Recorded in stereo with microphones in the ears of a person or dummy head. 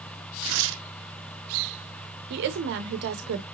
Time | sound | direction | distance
0.4 | tearing paper | 65° right (ahead or behind) | 0.5 m
2.3 | a woman speaking | 50° right (ahead or behind) | 0.7 m